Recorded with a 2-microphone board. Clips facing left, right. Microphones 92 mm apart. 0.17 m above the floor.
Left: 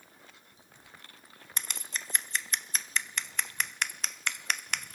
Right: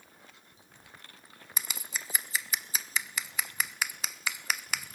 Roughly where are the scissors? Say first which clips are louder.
Even; centre.